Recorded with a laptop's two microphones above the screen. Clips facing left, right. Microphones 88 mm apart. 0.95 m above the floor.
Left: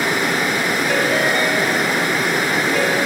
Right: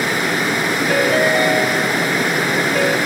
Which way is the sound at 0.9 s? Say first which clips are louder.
Right 4 dB; 5° right (ahead or behind).